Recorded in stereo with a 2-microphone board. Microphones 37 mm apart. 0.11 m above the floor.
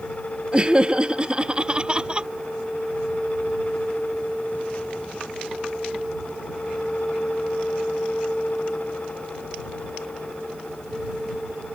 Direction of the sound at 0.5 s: 30° right (ahead or behind).